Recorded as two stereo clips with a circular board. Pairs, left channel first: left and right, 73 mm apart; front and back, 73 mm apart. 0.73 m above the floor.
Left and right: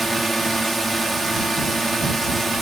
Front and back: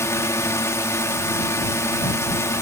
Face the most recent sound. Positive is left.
turn(degrees=0)